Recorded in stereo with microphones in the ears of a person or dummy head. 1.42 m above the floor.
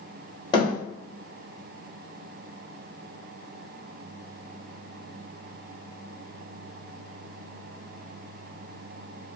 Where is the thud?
30° left (ahead or behind), 1.3 m.